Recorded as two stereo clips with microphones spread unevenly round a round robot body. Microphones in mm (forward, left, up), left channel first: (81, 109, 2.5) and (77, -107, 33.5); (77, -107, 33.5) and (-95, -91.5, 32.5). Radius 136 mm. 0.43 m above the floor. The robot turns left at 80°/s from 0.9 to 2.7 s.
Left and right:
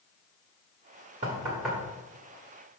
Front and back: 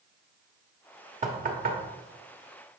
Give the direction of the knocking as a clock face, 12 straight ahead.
5 o'clock.